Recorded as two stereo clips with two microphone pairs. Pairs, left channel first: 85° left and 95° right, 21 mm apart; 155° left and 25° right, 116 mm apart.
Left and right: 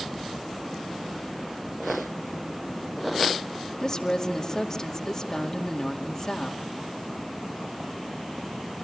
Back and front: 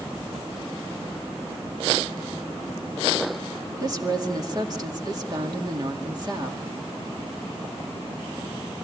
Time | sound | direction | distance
3.8 | a woman speaking | 25° left | 2.0 m